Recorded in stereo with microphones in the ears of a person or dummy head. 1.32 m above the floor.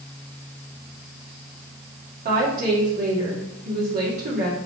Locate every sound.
2.2 s a woman speaking: 45° right (ahead or behind), 2.5 m